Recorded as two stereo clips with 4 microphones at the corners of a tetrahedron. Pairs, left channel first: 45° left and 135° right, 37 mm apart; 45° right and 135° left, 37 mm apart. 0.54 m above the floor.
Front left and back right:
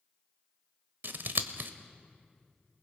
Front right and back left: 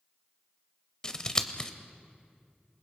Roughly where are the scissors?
Behind right.